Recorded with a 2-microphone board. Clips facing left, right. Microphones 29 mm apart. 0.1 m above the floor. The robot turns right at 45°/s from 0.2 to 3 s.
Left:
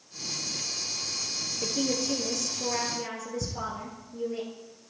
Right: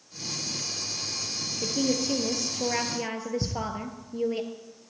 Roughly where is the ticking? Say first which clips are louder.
Right 3 dB; right.